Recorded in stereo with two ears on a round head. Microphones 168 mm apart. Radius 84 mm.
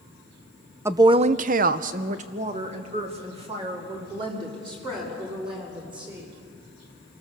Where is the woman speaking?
15° right (ahead or behind), 0.7 m; by 6.3 s 25° right (ahead or behind), 5.5 m.